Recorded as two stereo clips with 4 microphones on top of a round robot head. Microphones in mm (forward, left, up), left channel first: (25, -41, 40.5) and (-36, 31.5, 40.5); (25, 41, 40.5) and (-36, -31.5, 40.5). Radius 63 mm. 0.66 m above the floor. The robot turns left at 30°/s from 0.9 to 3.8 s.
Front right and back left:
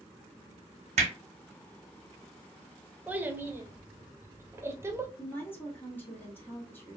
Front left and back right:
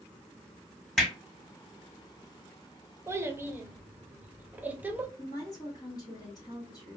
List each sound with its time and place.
1.0 s hammering: 140° left, 1.6 m; by 1.1 s 135° left, 1.6 m
3.1 s a child speaking: 170° right, 0.7 m; by 5.1 s 170° left, 0.7 m
5.2 s a woman speaking: 15° left, 1.4 m